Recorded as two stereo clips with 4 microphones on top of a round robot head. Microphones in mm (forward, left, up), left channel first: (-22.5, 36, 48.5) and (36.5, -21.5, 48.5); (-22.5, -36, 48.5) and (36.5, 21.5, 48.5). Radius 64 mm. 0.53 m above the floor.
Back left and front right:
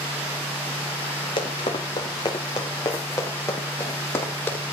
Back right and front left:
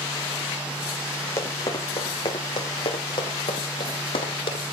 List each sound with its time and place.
1.4 s running footsteps: 165° left, 3.5 m; by 4.6 s 155° right, 6 m